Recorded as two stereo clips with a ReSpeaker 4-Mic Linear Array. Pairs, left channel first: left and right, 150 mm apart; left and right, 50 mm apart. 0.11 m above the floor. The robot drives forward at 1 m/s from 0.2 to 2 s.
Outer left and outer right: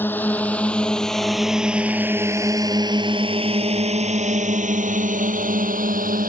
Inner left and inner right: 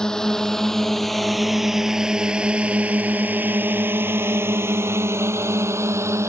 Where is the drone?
15° left (ahead or behind); by 6.3 s 70° right (ahead or behind).